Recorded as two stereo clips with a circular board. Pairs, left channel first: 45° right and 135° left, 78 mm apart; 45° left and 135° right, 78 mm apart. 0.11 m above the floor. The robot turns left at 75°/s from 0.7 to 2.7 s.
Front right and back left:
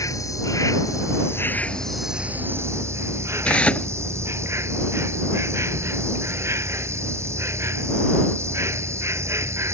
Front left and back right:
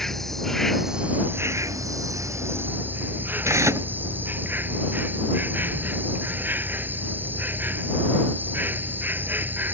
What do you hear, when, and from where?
0.0 s an insect: 40° right; by 9.8 s 170° left
3.5 s tearing paper: 110° right